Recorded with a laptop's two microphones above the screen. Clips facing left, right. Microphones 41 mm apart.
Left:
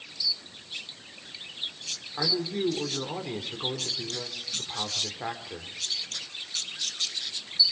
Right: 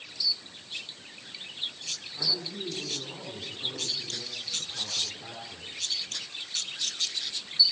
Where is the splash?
No splash in this recording.